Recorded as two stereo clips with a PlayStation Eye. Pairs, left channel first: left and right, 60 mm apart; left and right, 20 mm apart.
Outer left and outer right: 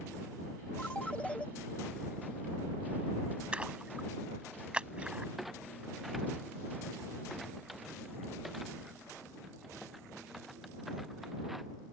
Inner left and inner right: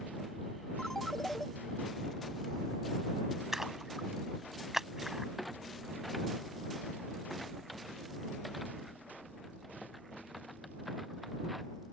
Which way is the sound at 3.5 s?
20° right (ahead or behind).